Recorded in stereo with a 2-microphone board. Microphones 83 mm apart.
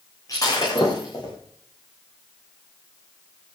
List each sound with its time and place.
0.3 s breaking glass: 45° left (ahead or behind), 7.5 m